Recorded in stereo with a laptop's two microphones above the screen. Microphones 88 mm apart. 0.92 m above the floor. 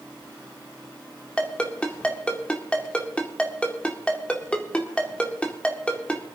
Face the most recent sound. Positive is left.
turn(degrees=15)  # may be behind; listen again after turning